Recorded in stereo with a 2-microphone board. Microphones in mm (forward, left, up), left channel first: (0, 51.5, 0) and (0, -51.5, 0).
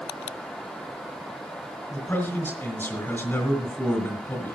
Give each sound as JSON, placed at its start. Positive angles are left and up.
{"t": 1.9, "sound": "a man speaking", "side_deg": 20, "distance_m": 2.0}